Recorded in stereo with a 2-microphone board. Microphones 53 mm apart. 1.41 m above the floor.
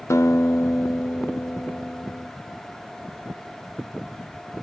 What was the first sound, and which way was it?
A guitar, 75° left (ahead or behind).